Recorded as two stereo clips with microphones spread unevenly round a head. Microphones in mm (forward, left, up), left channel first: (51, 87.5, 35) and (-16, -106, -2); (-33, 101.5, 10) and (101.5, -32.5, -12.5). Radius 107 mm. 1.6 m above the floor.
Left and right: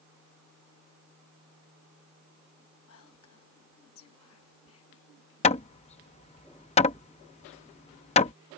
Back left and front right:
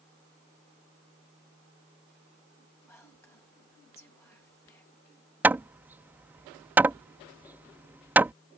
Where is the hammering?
40° left.